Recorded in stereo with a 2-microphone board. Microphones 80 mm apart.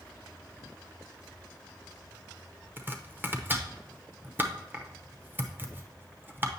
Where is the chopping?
25° right (ahead or behind), 0.7 m.